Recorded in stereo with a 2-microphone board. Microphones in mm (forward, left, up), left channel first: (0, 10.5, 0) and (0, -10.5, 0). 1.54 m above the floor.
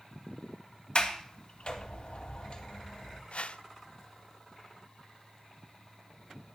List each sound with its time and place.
0.9 s a sliding door: 55° left (ahead or behind), 1.8 m
3.3 s a whoosh: 70° left (ahead or behind), 0.6 m